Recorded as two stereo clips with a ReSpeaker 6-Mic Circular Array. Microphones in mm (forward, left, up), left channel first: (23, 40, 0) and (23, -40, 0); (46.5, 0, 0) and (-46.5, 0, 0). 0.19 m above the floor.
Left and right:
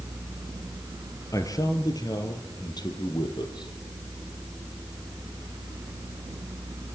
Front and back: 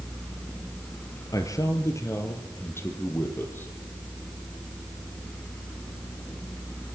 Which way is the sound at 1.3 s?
45° left.